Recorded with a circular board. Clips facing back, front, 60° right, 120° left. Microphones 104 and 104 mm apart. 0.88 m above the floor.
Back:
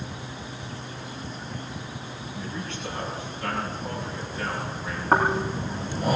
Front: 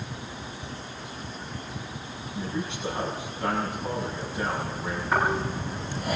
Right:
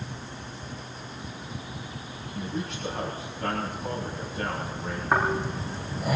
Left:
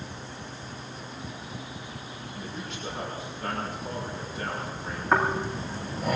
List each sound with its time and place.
2.3 s a man speaking: 70° right, 6 m
5.1 s snoring: 145° right, 9.5 m